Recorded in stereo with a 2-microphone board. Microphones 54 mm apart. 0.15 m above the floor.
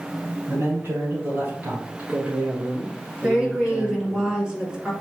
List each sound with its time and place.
0.5 s a man speaking: 45° right (ahead or behind), 1.7 m; by 4.2 s 10° right (ahead or behind), 2 m
3.2 s a woman speaking: 20° right (ahead or behind), 1.7 m